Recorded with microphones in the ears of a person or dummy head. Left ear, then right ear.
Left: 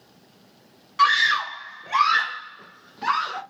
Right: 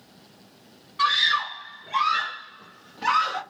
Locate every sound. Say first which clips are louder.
1.0 s a scream: left 3 dB; 45° left (ahead or behind), 0.9 m; by 3.4 s 10° left (ahead or behind), 0.8 m